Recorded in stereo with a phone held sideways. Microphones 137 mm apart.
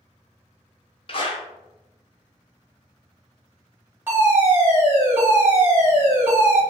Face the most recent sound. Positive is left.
turn(degrees=-20)  # may be behind; listen again after turning